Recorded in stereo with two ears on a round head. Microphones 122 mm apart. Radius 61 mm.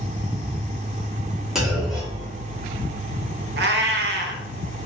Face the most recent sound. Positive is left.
turn(degrees=-80)